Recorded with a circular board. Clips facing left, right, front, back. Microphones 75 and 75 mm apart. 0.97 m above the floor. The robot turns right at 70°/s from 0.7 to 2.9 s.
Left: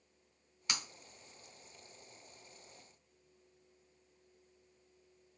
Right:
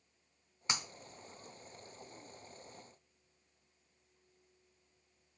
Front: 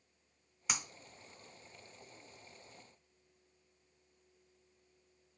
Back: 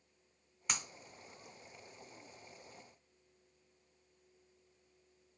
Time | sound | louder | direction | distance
0.7 | breaking glass | right 2 dB, front 1 dB | 80° right | 0.6 m